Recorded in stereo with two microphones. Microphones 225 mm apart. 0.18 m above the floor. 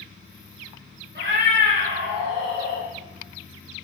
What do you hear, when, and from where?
1.1 s a cat meowing: 50° right (ahead or behind), 0.9 m; by 2.9 s 20° right (ahead or behind), 1.6 m